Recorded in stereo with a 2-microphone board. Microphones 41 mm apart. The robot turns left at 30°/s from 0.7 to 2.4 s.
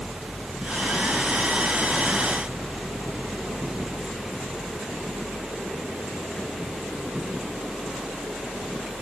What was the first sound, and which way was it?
Only background noise.